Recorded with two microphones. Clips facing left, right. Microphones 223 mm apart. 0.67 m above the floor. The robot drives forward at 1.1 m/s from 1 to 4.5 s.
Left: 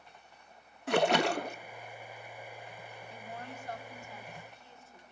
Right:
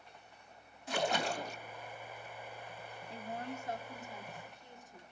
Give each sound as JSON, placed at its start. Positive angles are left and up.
{"t": 0.9, "sound": "a splash", "side_deg": 70, "distance_m": 0.7}
{"t": 3.1, "sound": "a woman speaking", "side_deg": -30, "distance_m": 1.5}